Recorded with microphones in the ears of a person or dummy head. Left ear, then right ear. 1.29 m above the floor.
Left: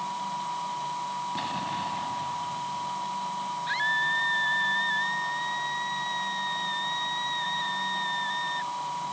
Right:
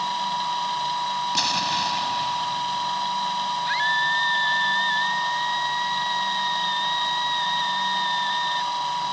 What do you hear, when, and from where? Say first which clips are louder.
0.0 s a machine running: right 7 dB; 75° right (ahead or behind)
1.4 s an explosion: right 8 dB; 80° right
3.7 s a scream: right 3 dB; 25° right (ahead or behind)